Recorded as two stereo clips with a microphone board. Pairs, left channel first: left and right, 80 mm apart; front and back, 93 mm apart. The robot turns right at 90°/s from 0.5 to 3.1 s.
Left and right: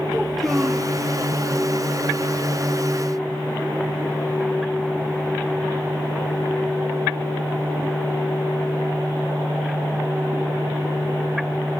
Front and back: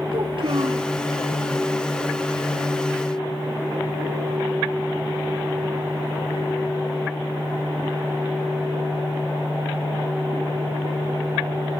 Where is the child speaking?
Straight behind, 2.0 m; by 0.9 s 145° right, 2.0 m.